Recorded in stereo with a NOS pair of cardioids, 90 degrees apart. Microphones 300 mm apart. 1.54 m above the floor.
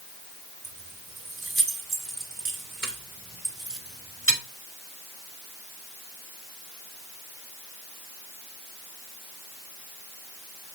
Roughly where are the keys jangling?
Ahead right.